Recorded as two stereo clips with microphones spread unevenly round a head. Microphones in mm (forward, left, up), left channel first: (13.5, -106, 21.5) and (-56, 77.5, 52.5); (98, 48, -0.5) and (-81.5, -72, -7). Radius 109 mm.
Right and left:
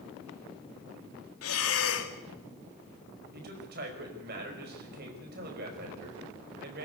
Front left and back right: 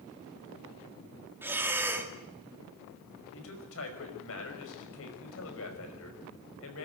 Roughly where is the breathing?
Ahead right.